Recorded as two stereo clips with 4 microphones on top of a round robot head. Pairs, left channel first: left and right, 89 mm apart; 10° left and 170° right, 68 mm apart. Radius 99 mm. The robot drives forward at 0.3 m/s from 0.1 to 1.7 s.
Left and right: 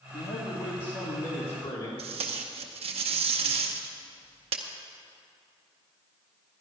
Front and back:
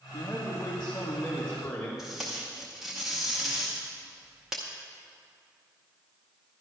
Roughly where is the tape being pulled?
Right.